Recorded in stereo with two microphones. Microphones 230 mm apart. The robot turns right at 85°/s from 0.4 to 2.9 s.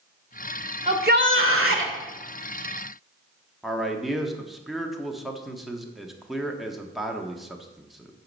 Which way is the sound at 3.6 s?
Centre (ahead or behind).